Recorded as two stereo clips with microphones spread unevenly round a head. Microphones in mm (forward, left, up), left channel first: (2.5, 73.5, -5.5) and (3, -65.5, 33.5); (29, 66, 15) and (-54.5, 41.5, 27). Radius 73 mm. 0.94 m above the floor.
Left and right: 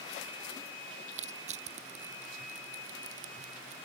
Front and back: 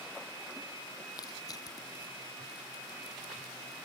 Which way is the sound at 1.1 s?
50° right.